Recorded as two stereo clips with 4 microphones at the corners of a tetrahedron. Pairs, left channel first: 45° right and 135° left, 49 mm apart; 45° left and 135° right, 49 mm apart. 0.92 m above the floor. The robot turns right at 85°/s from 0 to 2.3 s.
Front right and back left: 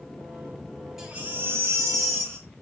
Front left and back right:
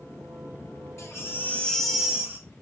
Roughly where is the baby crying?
Ahead left.